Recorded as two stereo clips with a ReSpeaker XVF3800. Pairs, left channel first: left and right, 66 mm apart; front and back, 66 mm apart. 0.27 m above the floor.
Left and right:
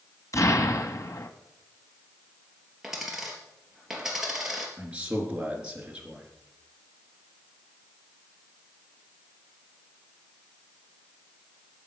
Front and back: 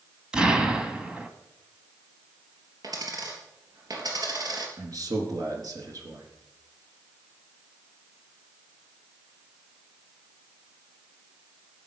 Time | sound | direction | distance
0.3 | an explosion | 105° left | 1.4 m
2.8 | a dropped coin | 175° right | 3.5 m
4.8 | a man speaking | 160° right | 4 m